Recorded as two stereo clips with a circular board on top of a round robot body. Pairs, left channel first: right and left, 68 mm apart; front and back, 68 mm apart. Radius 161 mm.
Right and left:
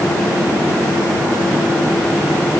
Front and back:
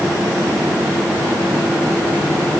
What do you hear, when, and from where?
Only background noise.